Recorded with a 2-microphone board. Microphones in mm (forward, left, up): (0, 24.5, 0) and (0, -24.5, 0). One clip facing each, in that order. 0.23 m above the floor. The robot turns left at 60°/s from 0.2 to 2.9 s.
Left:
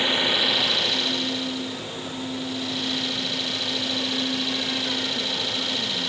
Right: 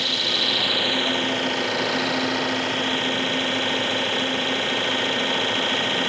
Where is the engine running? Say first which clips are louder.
Left 2 dB; 20° left; by 6.1 s 140° right.